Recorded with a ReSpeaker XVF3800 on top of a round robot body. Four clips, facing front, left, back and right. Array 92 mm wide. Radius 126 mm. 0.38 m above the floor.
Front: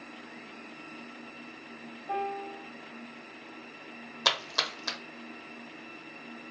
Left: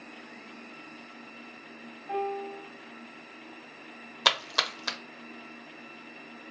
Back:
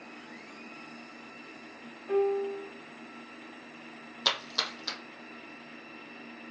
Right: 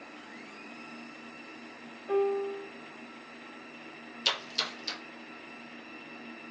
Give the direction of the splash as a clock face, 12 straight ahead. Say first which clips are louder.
Left 7 dB, front 3 dB; 9 o'clock.